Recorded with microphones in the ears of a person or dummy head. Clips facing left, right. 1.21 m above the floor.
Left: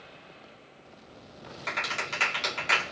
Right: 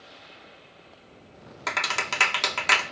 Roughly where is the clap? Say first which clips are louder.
Right 4 dB; right.